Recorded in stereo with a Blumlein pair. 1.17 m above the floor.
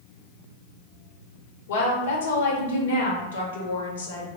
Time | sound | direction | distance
1.7 | a woman speaking | 65° left | 0.9 m